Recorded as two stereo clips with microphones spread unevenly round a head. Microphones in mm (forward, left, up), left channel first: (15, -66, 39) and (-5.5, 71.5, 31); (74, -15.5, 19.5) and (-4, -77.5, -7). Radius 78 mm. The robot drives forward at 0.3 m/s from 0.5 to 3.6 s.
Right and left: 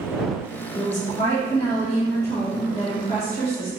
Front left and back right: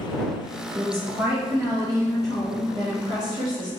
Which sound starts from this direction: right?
A woman speaking, at 0.8 s.